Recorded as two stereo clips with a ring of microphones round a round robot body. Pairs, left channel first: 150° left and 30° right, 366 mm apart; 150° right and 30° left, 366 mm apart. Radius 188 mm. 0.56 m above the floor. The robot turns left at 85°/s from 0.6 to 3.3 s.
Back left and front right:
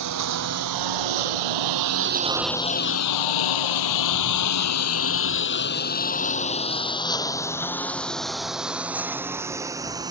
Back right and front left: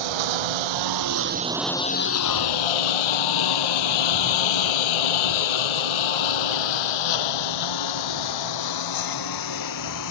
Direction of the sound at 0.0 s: 15° left.